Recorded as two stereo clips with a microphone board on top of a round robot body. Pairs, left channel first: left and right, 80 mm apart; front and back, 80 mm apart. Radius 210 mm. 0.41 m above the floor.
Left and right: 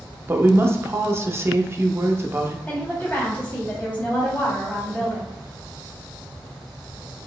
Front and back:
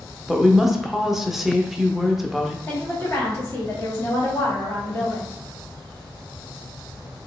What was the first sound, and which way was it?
A woman speaking, 95° right.